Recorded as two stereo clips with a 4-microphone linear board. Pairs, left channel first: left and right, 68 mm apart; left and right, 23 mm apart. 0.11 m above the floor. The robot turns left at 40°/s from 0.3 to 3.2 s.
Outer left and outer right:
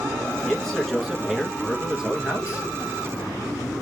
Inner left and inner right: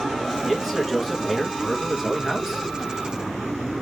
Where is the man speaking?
10° left (ahead or behind), 1.1 m; by 2.6 s 20° right (ahead or behind), 1.1 m.